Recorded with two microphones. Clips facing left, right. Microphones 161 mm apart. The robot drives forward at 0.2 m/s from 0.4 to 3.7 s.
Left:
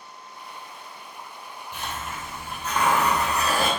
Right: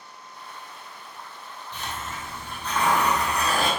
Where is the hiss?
10° left (ahead or behind), 1.5 m.